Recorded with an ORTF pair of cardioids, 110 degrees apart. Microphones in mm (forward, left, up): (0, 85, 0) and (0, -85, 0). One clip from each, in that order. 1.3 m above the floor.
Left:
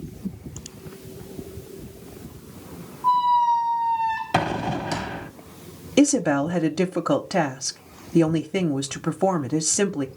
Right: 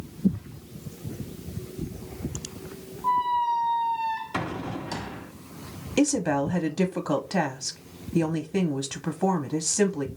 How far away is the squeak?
About 0.8 m.